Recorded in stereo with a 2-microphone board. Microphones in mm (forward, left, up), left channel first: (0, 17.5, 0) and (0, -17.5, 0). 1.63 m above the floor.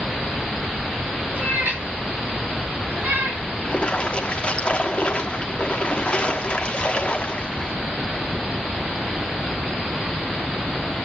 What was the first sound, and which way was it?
A cat meowing, 75° right (ahead or behind).